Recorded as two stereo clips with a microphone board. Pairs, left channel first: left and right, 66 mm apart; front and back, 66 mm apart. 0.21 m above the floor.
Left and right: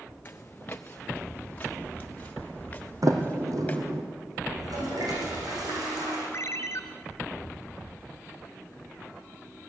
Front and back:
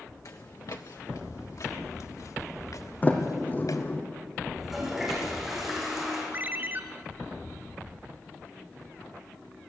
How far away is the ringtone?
About 1.7 m.